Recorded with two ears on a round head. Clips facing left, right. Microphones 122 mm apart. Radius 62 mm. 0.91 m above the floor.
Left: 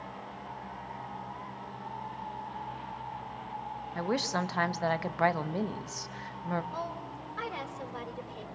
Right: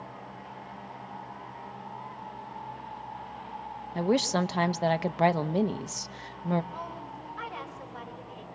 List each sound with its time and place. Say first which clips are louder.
4.0 s a woman speaking: right 6 dB; 25° right (ahead or behind), 0.6 m
6.7 s a woman speaking: left 1 dB; 40° left (ahead or behind), 4.5 m